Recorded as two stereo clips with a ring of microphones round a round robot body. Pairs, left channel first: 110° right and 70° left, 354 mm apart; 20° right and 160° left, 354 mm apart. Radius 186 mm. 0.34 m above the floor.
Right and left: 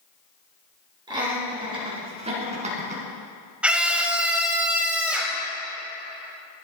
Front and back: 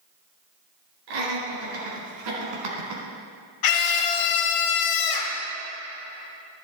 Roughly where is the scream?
Ahead.